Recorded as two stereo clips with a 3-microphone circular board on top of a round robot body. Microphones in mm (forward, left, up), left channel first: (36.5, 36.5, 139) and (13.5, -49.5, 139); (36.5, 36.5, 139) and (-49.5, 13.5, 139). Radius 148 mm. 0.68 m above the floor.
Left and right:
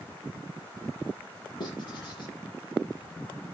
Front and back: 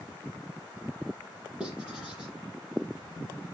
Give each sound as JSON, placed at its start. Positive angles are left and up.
{"t": 1.6, "sound": "writing", "azimuth_deg": 115, "distance_m": 7.5}